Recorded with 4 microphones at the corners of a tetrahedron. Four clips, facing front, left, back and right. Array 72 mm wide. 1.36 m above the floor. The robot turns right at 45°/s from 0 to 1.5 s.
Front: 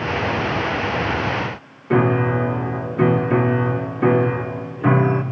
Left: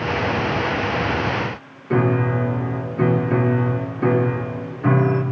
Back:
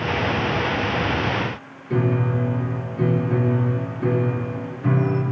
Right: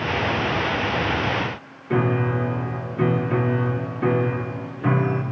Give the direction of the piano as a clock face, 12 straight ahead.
11 o'clock.